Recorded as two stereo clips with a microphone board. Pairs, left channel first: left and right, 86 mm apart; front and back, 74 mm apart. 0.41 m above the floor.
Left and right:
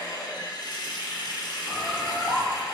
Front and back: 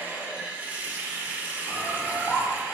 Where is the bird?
35° left, 1.3 m.